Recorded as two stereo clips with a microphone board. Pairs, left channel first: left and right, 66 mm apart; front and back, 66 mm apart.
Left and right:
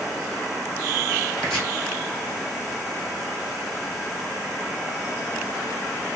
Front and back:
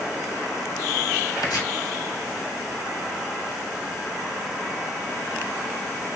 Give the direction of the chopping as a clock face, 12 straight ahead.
12 o'clock.